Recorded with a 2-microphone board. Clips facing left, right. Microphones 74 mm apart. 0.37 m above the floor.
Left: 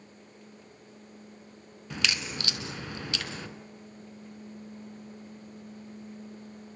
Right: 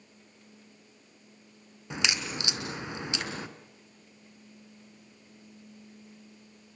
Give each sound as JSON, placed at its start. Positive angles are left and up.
{"t": 1.9, "sound": "a crack", "side_deg": -20, "distance_m": 2.0}